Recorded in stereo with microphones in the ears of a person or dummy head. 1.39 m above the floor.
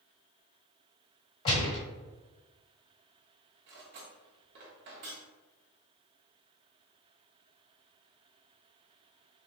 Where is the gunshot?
25° left (ahead or behind), 1.6 m.